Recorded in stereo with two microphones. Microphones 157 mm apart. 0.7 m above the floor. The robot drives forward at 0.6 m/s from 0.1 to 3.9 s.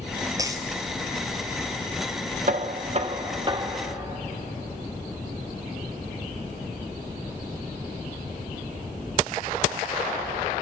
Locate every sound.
0.4 s a dropped coin: 20° right (ahead or behind), 1.5 m
2.5 s knocking: 55° right (ahead or behind), 0.6 m; by 4.2 s 25° right (ahead or behind), 1.2 m